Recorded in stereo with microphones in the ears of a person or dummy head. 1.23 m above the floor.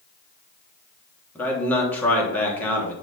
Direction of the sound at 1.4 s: 10° left (ahead or behind).